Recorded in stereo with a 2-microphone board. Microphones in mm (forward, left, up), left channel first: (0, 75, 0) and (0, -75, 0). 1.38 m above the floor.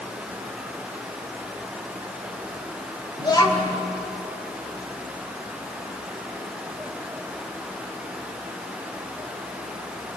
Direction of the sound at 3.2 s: 25° left (ahead or behind).